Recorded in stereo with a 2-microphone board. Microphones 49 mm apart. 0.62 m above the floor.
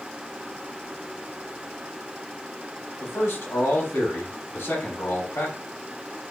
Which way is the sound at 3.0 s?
55° left (ahead or behind).